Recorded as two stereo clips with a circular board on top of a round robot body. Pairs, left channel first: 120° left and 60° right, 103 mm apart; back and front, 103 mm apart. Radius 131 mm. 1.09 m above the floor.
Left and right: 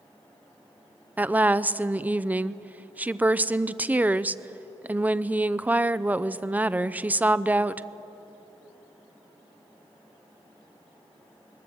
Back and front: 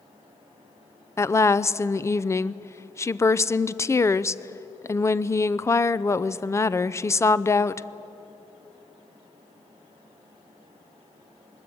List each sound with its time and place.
1.2 s a woman speaking: 130° right, 0.7 m